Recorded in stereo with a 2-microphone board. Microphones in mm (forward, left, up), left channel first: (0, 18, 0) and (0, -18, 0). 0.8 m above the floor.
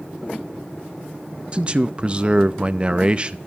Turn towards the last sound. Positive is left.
turn(degrees=-30)  # may be behind; listen again after turning